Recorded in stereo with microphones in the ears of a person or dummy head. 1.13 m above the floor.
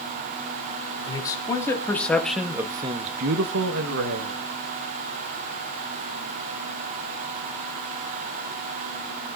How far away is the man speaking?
About 2.5 m.